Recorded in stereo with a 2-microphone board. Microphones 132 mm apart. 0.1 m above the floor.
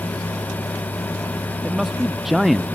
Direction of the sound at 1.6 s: Centre (ahead or behind).